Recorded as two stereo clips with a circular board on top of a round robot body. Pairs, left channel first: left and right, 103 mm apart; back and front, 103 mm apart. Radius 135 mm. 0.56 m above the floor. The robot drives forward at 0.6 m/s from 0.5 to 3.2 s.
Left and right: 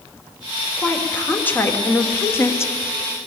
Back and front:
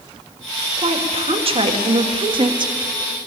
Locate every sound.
0.8 s a woman speaking: 15° left, 2 m; by 2.7 s 30° left, 1.2 m